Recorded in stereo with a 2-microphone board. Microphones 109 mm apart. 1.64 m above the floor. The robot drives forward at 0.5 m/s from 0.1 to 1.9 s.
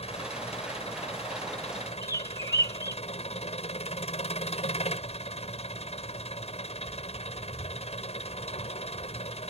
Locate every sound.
0.0 s an engine running: 75° left (ahead or behind); by 9.5 s 80° left
2.0 s a bird: 30° left (ahead or behind)